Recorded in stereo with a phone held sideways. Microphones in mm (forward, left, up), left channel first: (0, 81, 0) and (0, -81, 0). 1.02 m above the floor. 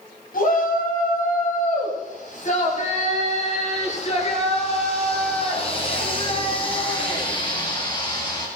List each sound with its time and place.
0.3 s a shout: 60° left (ahead or behind), 8 m; by 8.5 s 30° left (ahead or behind), 10.5 m